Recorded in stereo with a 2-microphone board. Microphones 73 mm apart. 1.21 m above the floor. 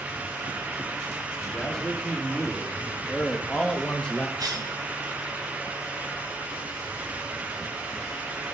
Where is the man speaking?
10° left (ahead or behind), 4 m; by 4.3 s 15° left (ahead or behind), 1.5 m.